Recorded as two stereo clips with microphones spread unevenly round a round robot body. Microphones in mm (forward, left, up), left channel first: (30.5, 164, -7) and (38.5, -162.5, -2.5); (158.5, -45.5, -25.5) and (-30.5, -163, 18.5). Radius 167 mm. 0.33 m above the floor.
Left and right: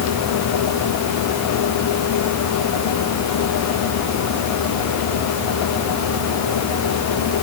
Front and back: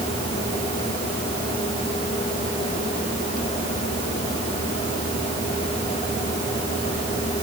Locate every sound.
Only background noise.